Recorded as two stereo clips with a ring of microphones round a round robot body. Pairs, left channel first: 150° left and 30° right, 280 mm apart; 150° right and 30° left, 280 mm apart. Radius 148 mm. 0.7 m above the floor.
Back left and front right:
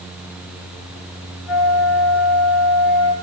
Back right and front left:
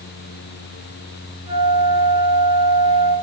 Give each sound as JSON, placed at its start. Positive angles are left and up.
{"t": 1.5, "sound": "a flute", "azimuth_deg": 105, "distance_m": 4.5}